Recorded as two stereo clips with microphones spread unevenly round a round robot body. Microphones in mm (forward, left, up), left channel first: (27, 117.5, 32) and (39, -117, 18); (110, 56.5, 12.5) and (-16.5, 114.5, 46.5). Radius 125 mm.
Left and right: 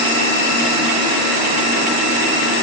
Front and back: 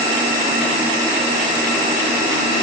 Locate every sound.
Only background noise.